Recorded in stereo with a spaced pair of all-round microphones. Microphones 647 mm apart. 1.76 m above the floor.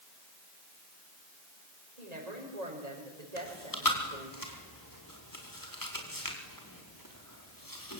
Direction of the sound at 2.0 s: 80° right.